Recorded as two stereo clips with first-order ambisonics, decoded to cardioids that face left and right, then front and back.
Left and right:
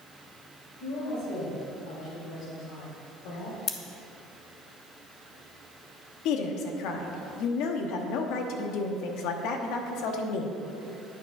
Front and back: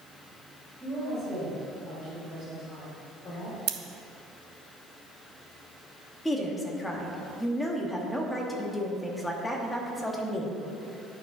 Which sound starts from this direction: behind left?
Scissors, at 3.7 s.